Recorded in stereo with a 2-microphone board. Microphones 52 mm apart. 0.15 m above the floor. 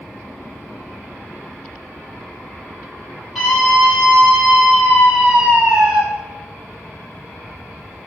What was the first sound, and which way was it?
A scream, 5° right (ahead or behind).